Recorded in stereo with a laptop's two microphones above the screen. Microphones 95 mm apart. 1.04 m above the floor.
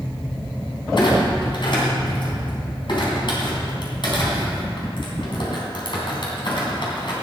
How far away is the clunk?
About 3 m.